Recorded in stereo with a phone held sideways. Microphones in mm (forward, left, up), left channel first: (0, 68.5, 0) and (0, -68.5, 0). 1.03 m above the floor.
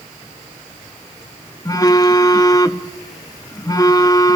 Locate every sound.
1.6 s a phone buzzing: 25° left (ahead or behind), 0.7 m